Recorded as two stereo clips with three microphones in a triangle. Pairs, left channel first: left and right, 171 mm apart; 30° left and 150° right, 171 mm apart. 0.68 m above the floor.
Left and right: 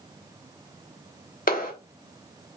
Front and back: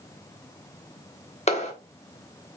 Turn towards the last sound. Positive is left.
turn(degrees=75)